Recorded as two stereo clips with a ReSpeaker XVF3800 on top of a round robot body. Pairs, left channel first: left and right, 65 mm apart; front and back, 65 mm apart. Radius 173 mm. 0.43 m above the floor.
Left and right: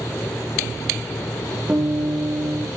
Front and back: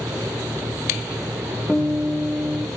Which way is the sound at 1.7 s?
110° right.